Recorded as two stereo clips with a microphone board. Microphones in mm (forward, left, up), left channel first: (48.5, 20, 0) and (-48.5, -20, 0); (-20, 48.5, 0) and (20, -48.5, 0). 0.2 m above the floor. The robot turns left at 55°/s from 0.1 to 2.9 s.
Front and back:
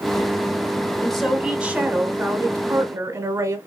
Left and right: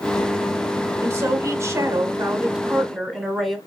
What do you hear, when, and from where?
1.0 s a woman speaking: 55° right, 1.1 m; by 3.6 s 160° right, 1.1 m